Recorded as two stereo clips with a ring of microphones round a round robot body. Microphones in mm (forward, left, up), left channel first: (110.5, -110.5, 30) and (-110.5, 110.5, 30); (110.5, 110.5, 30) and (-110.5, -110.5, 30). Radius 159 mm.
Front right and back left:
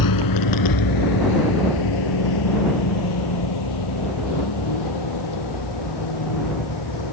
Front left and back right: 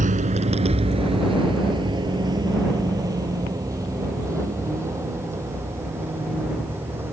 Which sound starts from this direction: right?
A vehicle, at 0.0 s.